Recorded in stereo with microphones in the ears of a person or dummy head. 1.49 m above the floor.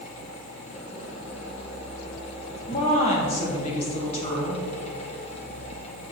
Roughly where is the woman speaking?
Left.